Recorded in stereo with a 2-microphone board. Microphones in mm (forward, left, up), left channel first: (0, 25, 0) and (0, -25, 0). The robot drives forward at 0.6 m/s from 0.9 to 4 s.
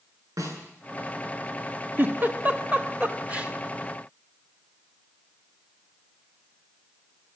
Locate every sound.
0.4 s a snare drum: 90° right, 8.5 m
2.0 s a giggle: 40° right (ahead or behind), 1.4 m; by 3.5 s 25° right (ahead or behind), 2 m